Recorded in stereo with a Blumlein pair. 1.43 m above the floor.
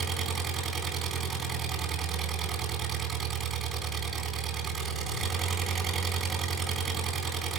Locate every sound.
0.0 s an engine running: 20° right, 4 m